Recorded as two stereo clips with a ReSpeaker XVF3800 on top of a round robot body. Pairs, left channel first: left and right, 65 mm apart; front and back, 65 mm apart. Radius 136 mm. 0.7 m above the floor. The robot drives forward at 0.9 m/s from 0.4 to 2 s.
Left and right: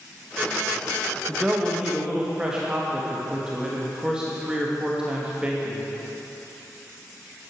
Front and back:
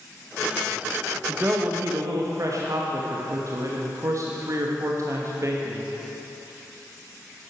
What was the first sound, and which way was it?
A man speaking, 145° right.